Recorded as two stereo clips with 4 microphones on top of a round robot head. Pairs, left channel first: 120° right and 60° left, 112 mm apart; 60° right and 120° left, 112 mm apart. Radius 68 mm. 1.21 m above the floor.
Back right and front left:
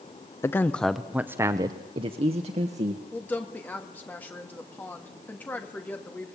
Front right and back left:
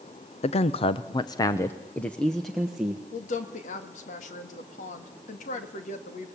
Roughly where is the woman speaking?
Ahead right.